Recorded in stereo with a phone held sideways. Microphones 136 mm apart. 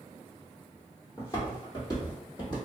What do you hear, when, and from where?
1.2 s footsteps: 25° left (ahead or behind), 1.6 m; by 2.5 s 35° left (ahead or behind), 2.5 m